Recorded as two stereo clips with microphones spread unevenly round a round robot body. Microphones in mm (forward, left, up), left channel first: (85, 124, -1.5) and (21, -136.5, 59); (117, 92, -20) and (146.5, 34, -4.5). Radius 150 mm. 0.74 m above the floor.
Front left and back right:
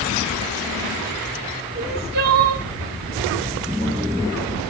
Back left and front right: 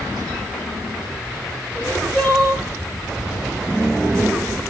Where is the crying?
165° right, 2 m.